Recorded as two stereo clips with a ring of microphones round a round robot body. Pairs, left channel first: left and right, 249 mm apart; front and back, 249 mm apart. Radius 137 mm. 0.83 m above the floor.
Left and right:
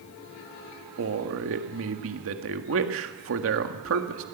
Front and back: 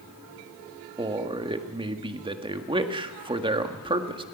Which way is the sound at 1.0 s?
115° right.